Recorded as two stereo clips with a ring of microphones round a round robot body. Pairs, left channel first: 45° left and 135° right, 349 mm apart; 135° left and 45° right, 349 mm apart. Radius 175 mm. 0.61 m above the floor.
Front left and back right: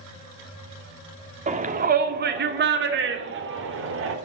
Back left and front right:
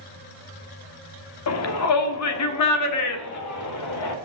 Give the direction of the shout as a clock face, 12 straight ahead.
7 o'clock.